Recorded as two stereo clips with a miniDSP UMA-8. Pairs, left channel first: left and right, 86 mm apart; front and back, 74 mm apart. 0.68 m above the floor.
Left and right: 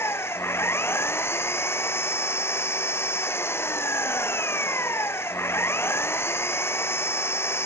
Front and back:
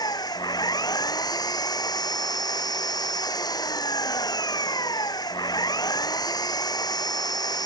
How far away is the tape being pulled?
No tape being pulled in this recording.